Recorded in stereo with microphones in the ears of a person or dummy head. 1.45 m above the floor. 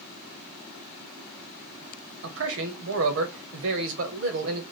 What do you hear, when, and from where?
2.2 s a man speaking: 75° right (ahead or behind), 1.1 m